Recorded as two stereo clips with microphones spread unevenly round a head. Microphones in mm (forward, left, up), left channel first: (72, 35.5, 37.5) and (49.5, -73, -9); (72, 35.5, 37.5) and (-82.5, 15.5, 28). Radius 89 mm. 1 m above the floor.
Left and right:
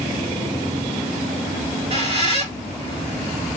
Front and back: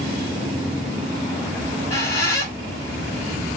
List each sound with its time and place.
1.6 s a squeak: 60° right, 1.5 m